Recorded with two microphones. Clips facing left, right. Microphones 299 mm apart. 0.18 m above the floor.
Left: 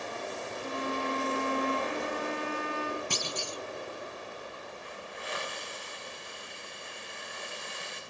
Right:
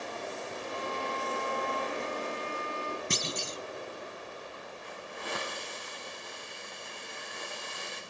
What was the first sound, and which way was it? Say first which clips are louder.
A violin: left 4 dB; 85° left.